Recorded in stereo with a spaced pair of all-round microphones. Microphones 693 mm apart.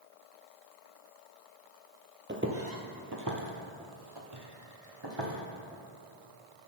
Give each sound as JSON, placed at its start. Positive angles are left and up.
{"t": 2.3, "sound": "footsteps", "side_deg": -15, "distance_m": 1.3}